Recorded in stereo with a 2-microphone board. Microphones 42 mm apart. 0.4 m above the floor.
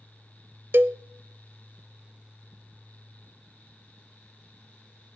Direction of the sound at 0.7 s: 65° right (ahead or behind).